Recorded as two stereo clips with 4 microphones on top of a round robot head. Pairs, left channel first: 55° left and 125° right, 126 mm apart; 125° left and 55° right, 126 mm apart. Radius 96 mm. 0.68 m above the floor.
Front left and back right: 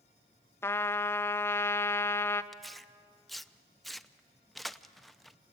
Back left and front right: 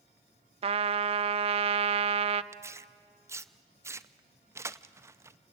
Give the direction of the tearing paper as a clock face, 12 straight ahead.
1 o'clock.